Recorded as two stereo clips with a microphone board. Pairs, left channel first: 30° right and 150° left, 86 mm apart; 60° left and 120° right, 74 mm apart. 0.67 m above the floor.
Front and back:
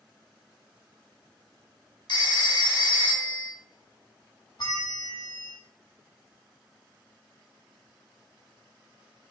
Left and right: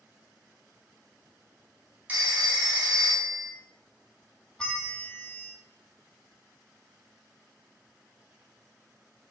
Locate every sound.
2.1 s a phone ringing: 55° right, 1.1 m
4.6 s a bell: 20° right, 0.9 m